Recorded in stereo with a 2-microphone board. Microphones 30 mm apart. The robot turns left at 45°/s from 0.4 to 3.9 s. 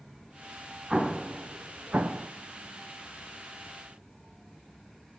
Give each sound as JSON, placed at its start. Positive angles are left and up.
{"t": 0.9, "sound": "an explosion", "side_deg": -10, "distance_m": 0.6}